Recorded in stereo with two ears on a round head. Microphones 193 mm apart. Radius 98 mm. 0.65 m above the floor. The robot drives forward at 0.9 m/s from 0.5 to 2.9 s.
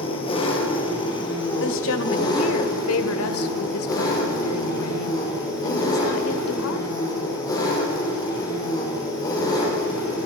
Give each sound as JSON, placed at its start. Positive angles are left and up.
{"t": 0.0, "sound": "an engine running", "side_deg": 25, "distance_m": 5.5}
{"t": 1.6, "sound": "a woman speaking", "side_deg": 60, "distance_m": 2.5}